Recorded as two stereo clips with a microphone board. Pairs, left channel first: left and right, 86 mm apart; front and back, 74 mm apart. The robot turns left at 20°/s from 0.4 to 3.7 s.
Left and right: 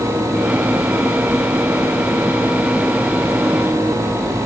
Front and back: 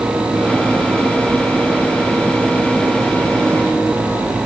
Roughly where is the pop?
No pop in this recording.